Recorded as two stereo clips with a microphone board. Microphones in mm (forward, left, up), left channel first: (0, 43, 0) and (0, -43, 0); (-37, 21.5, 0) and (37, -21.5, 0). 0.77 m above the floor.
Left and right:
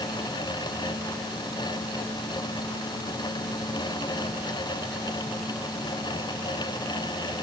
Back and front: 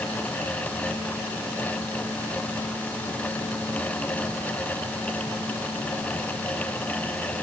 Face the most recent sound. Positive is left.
No sound to turn to.